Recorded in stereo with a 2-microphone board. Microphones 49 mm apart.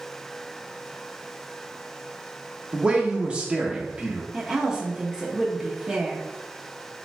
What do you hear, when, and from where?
2.7 s a man speaking: 25° right (ahead or behind), 0.8 m
4.3 s a woman speaking: 15° right (ahead or behind), 0.6 m